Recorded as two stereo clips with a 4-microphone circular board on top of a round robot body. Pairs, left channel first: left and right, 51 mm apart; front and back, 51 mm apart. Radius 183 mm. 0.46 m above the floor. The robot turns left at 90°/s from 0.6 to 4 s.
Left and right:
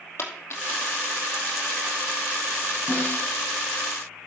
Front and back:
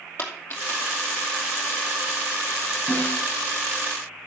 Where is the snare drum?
45° left, 6 m; by 3.3 s 10° left, 6 m.